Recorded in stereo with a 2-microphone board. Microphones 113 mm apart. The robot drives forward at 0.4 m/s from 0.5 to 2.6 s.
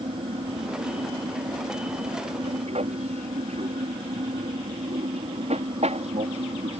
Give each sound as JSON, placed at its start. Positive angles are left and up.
{"t": 0.0, "sound": "an aircraft", "side_deg": -70}